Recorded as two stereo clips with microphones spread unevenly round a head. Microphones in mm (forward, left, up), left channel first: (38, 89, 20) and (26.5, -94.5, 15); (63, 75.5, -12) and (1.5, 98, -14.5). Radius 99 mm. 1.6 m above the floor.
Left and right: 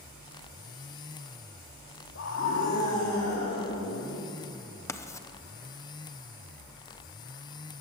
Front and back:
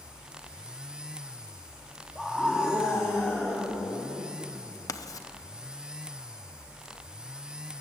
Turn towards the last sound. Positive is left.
turn(degrees=10)